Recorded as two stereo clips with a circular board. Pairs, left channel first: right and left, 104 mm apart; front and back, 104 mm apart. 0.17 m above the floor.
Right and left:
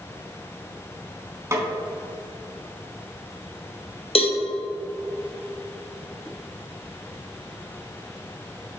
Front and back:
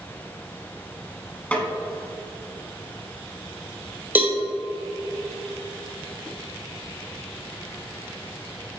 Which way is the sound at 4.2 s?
105° right.